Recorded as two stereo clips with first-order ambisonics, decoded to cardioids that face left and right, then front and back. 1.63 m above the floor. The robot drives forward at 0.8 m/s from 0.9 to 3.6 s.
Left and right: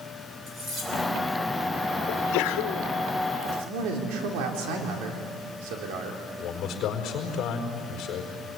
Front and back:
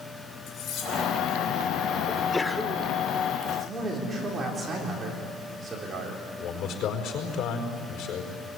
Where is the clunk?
No clunk in this recording.